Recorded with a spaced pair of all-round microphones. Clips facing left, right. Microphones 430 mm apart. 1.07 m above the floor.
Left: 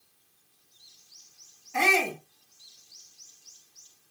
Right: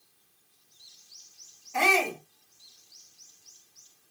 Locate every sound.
1.7 s a shout: 30° left (ahead or behind), 1.8 m